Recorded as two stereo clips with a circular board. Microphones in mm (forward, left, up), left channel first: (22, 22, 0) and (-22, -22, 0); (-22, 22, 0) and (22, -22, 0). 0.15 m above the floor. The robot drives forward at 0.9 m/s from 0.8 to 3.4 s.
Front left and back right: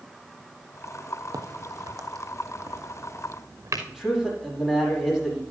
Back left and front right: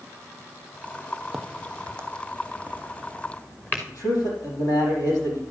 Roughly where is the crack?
Behind right.